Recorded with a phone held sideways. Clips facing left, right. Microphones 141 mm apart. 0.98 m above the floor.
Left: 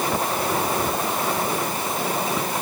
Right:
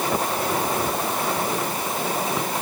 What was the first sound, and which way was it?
Only background noise.